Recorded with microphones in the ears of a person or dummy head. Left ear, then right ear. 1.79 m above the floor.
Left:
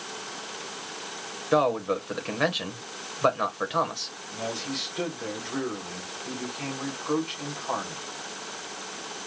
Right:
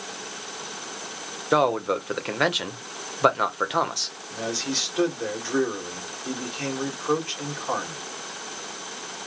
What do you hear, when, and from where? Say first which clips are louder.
1.5 s a man speaking: right 2 dB; 15° right (ahead or behind), 1.0 m
4.3 s a man speaking: right 4 dB; 35° right (ahead or behind), 2.5 m